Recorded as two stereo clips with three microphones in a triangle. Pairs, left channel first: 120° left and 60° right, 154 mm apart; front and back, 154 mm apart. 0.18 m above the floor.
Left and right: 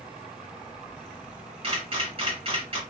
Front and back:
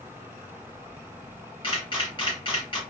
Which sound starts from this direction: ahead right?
A camera shutter, at 1.6 s.